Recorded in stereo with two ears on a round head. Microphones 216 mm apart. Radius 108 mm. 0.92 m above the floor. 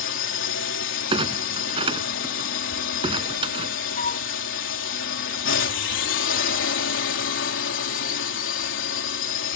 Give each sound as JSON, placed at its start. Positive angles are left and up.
{"t": 0.0, "sound": "a drone", "side_deg": 50}
{"t": 1.1, "sound": "a clunk", "side_deg": -20}
{"t": 4.0, "sound": "a flute", "side_deg": 30}